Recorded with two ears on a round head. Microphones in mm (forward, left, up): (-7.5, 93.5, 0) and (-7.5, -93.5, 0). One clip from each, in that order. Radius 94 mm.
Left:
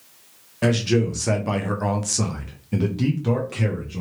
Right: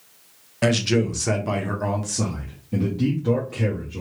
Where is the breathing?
I don't hear breathing.